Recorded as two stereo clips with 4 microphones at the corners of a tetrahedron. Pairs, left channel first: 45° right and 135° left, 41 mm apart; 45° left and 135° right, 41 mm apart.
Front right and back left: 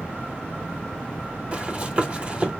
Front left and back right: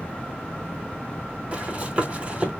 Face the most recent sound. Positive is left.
turn(degrees=-175)